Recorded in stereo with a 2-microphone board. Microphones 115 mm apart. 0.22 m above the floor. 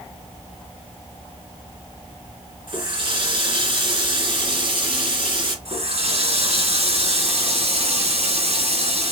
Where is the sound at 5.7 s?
65° right (ahead or behind), 2.5 m.